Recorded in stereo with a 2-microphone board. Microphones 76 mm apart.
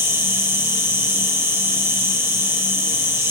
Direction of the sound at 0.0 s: 35° right (ahead or behind).